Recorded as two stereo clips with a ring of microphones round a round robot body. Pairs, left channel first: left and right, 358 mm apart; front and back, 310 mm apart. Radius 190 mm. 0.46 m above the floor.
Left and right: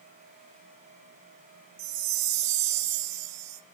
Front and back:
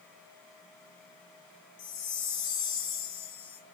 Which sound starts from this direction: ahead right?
A chime, at 1.8 s.